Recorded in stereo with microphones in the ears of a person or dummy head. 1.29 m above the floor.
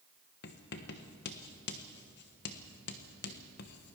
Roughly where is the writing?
Left.